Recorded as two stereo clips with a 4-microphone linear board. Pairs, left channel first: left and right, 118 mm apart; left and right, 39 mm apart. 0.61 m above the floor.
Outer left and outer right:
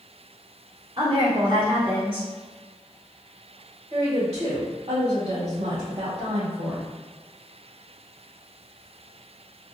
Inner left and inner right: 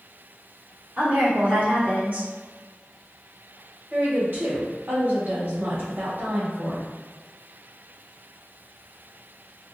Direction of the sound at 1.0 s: 45° right (ahead or behind).